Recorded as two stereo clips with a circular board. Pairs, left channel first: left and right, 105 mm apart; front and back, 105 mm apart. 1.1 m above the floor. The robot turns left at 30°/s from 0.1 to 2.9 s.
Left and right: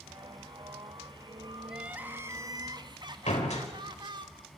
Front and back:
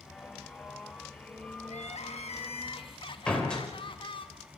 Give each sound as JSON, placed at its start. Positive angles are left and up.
{"t": 1.7, "sound": "crying", "azimuth_deg": -5, "distance_m": 1.3}
{"t": 3.3, "sound": "a door slam", "azimuth_deg": 80, "distance_m": 4.5}